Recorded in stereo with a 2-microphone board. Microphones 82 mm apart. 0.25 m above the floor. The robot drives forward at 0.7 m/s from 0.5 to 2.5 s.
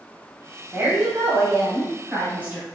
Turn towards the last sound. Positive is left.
turn(degrees=-20)  # may be behind; listen again after turning